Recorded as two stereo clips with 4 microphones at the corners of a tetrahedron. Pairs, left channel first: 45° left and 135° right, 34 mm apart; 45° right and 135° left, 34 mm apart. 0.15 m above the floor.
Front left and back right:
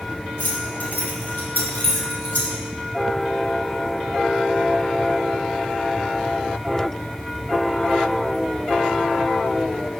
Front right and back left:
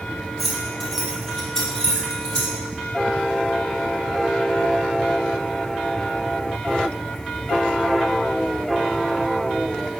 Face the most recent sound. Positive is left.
turn(degrees=20)